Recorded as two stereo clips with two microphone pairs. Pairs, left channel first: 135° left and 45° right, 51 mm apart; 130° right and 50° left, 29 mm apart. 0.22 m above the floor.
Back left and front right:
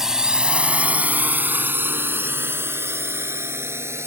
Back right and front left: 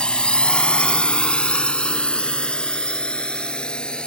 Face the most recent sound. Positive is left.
turn(degrees=-75)